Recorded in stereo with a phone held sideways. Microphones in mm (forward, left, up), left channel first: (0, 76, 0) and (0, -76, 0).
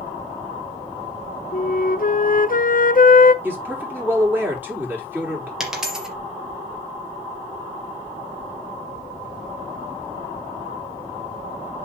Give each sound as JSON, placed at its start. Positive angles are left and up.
{"t": 1.5, "sound": "a flute", "side_deg": 60, "distance_m": 0.7}
{"t": 3.4, "sound": "a man speaking", "side_deg": -10, "distance_m": 4.5}
{"t": 5.6, "sound": "a dropped coin", "side_deg": -5, "distance_m": 3.0}